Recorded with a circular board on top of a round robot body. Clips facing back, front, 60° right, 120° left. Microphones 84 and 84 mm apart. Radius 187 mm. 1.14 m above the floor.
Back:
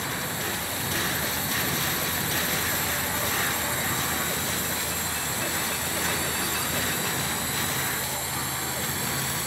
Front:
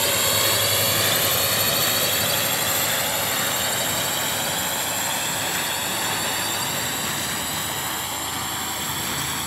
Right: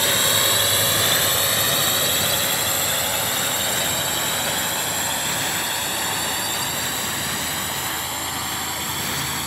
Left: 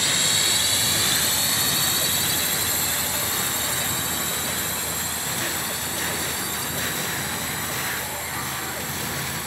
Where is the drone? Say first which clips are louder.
Front 7 dB, right 5 dB; 15° right; by 9.5 s 30° right.